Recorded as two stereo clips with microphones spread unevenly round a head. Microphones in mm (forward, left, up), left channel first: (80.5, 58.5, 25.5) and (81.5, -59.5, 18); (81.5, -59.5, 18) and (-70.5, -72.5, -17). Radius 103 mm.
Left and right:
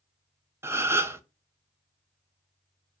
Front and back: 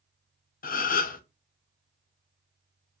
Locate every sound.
0.6 s a gasp: 25° right, 0.7 m